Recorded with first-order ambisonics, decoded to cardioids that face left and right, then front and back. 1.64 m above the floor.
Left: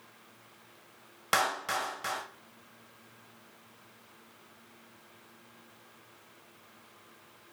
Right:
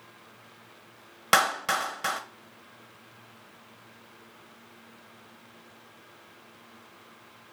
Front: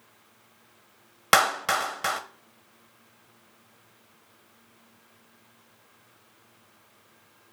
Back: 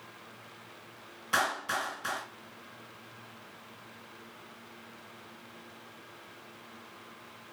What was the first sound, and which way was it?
A clap, 25° right.